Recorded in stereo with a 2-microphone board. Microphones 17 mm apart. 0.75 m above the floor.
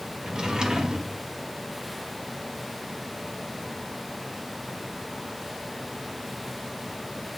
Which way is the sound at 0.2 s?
55° right (ahead or behind).